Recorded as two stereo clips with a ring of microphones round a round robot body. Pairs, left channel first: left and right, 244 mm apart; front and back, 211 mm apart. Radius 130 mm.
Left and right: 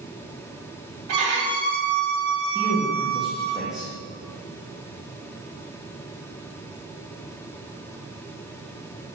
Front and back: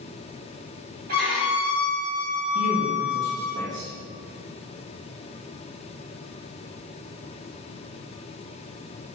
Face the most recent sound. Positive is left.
turn(degrees=-175)